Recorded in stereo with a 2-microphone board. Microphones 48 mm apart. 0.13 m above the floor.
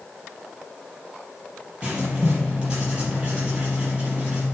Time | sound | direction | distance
1.8 | writing | 20° right (ahead or behind) | 4 m